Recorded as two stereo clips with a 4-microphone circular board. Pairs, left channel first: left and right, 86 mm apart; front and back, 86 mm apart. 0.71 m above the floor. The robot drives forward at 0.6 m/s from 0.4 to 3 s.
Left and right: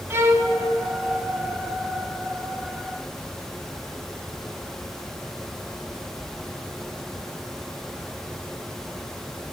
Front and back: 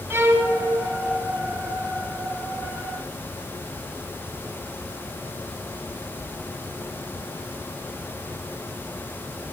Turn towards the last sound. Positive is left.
turn(degrees=-170)